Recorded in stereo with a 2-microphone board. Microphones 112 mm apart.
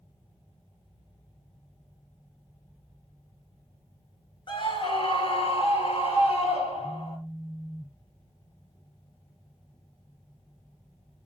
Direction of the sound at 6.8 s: 20° left (ahead or behind).